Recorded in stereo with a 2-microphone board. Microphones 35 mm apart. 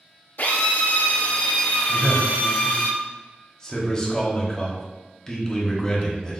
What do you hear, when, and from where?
0.4 s a drill: 80° left, 1.1 m
1.9 s a man speaking: 25° left (ahead or behind), 0.9 m